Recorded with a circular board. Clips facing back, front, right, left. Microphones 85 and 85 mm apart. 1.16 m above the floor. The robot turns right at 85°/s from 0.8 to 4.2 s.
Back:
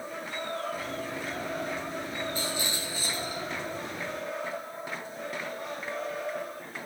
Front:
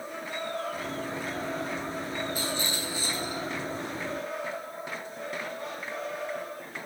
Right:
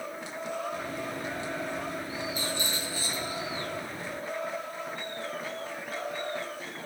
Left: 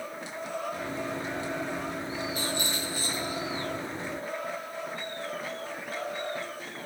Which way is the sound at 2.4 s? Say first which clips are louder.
Front 1 dB, left 1 dB; 80° left.